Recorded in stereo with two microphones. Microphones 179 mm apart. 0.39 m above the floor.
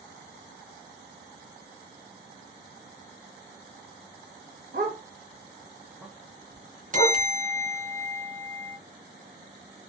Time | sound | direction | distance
4.7 | a dog barking | 65° right (ahead or behind) | 0.8 m
6.9 | a bell | 45° right (ahead or behind) | 0.7 m